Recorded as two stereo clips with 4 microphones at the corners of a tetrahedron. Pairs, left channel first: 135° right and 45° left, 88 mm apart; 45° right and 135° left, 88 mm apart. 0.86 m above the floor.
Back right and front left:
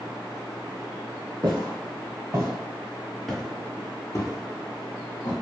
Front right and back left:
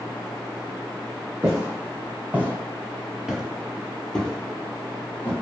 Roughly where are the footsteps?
Left.